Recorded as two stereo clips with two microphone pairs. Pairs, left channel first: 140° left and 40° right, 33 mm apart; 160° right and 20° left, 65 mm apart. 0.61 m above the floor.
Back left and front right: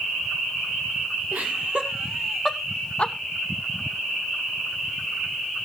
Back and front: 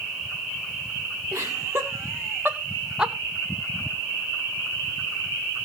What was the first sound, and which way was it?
Laughter, 20° right.